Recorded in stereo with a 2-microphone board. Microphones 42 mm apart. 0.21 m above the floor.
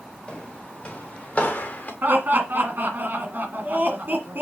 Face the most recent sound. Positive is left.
turn(degrees=-50)  # may be behind; listen again after turning